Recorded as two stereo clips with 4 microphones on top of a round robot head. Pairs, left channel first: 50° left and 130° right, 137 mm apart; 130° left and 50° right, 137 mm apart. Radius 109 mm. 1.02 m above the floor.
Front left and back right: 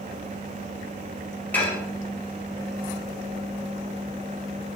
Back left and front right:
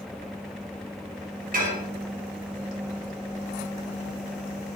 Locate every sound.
1.5 s dishes clattering: 30° right, 4 m